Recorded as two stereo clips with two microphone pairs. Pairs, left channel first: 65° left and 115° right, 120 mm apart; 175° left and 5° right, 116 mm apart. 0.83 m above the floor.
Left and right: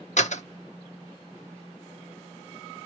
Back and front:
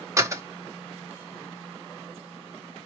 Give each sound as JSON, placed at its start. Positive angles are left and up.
{"t": 0.2, "sound": "a door slam", "azimuth_deg": 50, "distance_m": 0.8}